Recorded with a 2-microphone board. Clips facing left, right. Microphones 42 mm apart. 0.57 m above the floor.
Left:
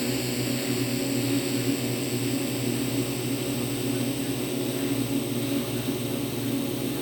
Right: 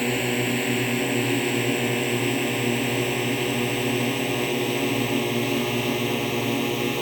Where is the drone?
45° right (ahead or behind); by 7.0 s 60° right (ahead or behind).